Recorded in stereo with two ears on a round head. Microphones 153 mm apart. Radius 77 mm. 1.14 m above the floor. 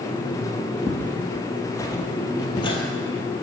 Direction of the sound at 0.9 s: 5° left (ahead or behind).